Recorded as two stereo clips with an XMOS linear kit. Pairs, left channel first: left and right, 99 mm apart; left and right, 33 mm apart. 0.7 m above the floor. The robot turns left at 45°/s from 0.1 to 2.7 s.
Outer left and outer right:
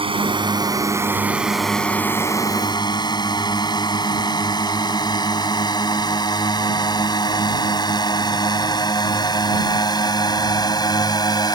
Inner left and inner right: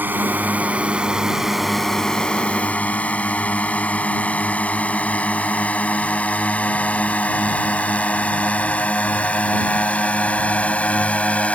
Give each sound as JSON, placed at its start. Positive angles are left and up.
{"t": 0.0, "sound": "a drone", "side_deg": -65}